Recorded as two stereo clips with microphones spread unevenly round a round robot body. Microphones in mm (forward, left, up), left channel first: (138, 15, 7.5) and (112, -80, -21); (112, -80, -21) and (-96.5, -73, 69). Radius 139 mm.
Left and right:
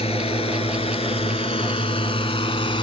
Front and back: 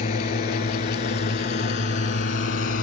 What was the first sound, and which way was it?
A drone, 60° left.